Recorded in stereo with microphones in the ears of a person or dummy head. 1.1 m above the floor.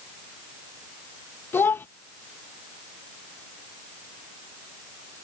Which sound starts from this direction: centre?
A child speaking, at 1.5 s.